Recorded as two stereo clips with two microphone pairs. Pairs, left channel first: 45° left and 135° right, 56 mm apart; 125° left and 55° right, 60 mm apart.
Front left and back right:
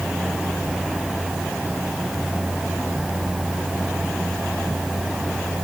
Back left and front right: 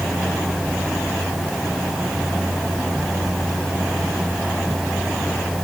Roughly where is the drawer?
No drawer in this recording.